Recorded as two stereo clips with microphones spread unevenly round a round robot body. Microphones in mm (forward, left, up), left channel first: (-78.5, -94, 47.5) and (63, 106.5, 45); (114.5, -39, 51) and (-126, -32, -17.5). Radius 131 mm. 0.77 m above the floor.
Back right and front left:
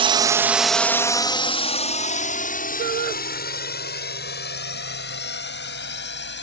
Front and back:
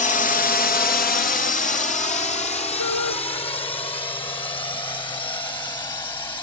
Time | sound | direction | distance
0.0 | a drone | 50° left | ?
2.8 | a shout | 5° right | ?